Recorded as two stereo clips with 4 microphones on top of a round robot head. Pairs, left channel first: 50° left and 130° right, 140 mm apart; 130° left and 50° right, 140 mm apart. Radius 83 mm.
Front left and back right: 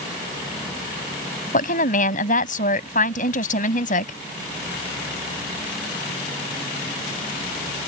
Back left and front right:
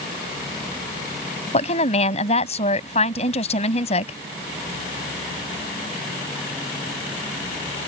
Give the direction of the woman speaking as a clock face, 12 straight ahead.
9 o'clock.